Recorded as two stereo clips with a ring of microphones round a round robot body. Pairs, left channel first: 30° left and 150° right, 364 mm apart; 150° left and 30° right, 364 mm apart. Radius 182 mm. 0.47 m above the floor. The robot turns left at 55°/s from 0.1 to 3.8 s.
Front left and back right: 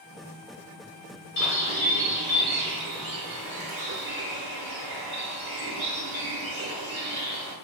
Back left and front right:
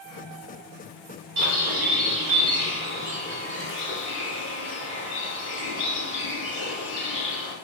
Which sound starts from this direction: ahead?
A bird, at 1.4 s.